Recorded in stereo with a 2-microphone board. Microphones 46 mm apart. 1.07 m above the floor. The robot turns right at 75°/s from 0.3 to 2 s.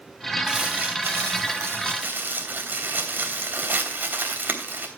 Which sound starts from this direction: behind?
Crumpling, at 0.5 s.